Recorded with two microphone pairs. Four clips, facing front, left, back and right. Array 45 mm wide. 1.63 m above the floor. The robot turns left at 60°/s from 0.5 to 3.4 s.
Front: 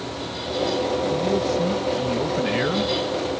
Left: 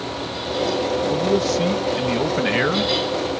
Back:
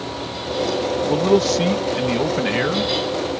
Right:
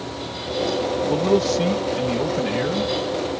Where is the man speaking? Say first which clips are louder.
Right 3 dB, back 5 dB; 160° right; by 2.9 s 90° left.